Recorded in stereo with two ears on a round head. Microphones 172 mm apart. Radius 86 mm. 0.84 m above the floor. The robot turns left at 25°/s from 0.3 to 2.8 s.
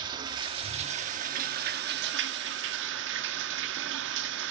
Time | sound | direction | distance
0.0 | running water | 25° right | 1.4 m